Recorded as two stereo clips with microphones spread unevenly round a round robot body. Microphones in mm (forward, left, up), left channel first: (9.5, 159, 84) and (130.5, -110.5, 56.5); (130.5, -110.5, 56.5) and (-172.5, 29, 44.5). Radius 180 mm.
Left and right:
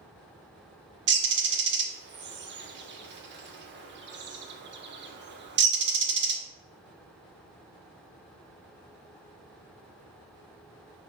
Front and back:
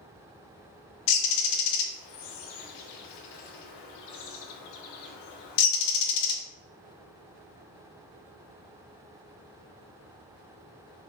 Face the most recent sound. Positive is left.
turn(degrees=-10)